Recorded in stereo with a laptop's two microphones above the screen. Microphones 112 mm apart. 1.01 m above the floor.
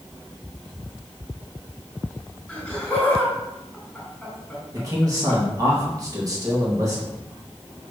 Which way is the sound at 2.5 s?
5° left (ahead or behind).